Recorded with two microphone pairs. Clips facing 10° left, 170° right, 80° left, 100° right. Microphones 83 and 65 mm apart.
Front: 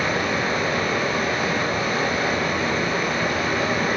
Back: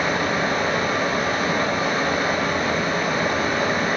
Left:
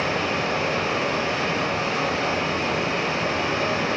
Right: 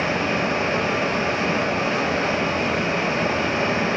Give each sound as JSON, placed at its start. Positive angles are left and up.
{"t": 0.0, "sound": "running water", "azimuth_deg": -140, "distance_m": 0.7}